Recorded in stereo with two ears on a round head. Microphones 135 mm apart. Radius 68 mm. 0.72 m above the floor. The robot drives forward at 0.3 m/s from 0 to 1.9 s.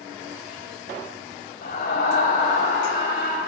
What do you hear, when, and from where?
1.6 s a scream: 55° left (ahead or behind), 3.5 m; by 3.4 s 60° left (ahead or behind), 3.5 m